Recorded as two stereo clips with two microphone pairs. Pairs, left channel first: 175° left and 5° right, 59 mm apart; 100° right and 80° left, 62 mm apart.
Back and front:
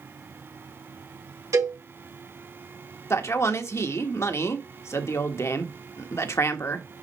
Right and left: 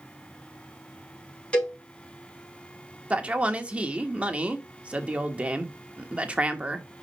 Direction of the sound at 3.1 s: 145° left.